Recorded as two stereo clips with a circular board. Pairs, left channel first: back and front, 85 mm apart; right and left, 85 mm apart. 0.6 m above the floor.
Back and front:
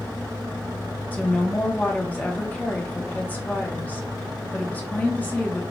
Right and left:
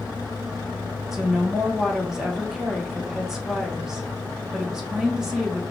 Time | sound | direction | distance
1.1 | a woman speaking | 160° left | 0.9 m